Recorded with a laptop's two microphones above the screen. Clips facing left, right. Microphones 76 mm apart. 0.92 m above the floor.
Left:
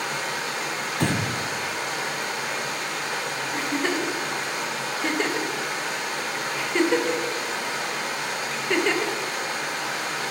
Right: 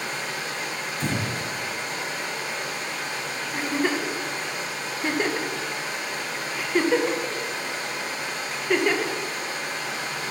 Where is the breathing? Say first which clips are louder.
Left 4 dB; 65° left (ahead or behind), 0.6 m.